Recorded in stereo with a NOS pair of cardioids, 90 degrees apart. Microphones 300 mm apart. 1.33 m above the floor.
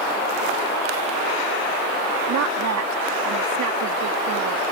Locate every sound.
2.3 s a woman speaking: 70° right